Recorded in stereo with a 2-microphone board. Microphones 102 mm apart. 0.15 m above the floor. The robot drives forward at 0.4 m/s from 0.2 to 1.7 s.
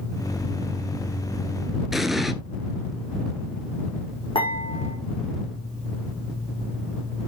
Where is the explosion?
Centre (ahead or behind), 0.9 m.